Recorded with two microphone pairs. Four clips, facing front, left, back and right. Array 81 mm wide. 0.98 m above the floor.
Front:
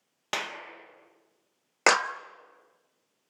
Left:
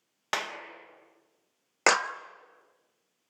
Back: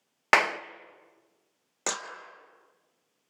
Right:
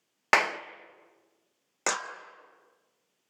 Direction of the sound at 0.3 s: 140° right.